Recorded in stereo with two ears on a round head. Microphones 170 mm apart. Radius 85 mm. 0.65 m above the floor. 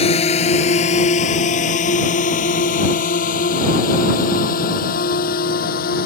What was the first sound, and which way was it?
A drone, 30° left (ahead or behind).